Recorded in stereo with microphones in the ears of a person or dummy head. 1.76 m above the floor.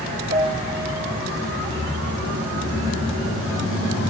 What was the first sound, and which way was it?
A piano, 40° right (ahead or behind).